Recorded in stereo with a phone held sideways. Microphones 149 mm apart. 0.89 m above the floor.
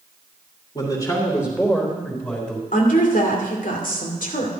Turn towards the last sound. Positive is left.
turn(degrees=65)  # may be behind; listen again after turning